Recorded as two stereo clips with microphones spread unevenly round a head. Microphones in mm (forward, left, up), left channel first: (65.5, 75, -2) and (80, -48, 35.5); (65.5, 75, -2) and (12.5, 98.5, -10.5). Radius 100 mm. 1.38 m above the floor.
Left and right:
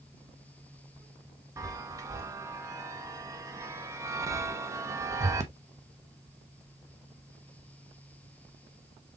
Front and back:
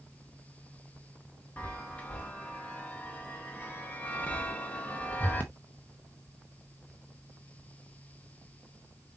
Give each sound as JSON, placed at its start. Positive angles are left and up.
{"t": 1.6, "sound": "a chime", "azimuth_deg": -70, "distance_m": 0.8}